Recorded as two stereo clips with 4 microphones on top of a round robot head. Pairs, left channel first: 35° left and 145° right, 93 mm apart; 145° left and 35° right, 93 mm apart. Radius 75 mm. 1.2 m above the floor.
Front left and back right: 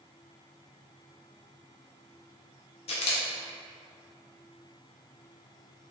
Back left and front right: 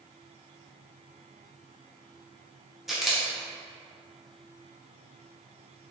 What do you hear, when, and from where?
2.9 s a camera shutter: 55° left, 0.6 m